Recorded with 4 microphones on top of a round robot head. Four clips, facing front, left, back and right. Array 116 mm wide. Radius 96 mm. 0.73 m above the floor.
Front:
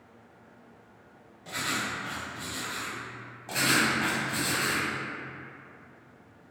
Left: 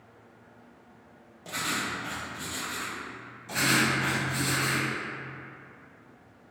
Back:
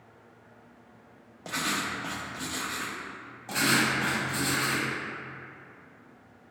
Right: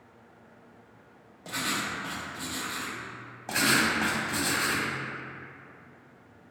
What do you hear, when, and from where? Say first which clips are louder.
1.4 s writing: even, back 1 dB; 170° right, 0.6 m
3.5 s writing: even, even; 95° right, 0.9 m